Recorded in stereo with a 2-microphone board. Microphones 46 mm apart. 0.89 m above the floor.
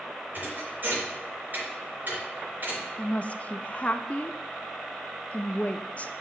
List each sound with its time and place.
0.3 s a thud: 45° right (ahead or behind), 4 m
3.0 s a woman speaking: 30° left (ahead or behind), 0.5 m